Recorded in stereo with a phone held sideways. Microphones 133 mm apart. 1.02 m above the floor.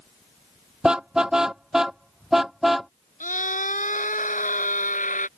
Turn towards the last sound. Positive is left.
turn(degrees=80)